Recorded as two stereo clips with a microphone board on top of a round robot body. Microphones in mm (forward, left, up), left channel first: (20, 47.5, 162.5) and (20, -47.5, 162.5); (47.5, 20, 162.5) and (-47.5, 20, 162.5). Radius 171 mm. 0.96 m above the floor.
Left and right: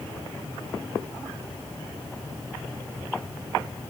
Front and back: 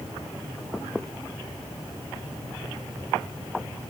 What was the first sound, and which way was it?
Only background noise.